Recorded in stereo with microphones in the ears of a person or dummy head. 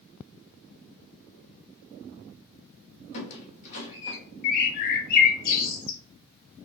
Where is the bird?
50° left (ahead or behind), 0.7 m.